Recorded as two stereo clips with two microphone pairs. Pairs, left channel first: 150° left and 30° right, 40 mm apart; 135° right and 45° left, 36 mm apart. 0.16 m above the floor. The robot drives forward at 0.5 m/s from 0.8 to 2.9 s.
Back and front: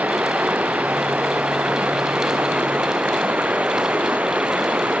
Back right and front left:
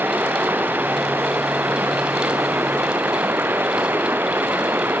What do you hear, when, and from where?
0.0 s running water: 20° left; by 5.0 s 25° left